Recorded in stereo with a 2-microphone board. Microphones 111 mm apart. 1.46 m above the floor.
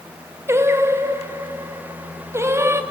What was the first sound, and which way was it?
Singing, 25° right (ahead or behind).